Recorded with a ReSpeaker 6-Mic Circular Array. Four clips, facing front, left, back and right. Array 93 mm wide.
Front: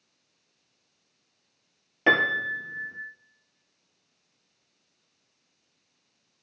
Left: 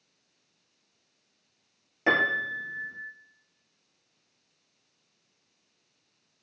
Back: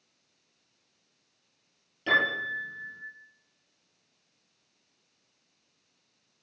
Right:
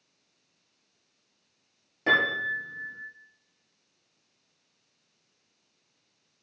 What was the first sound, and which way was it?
A piano, 15° left.